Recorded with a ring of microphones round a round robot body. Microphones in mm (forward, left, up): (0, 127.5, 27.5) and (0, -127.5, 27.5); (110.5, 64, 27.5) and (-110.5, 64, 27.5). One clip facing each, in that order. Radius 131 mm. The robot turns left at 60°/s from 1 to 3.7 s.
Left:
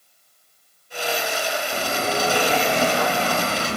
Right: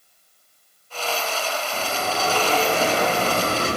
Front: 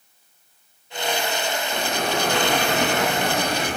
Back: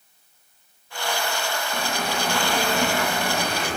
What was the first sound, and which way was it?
A bell, 55° left.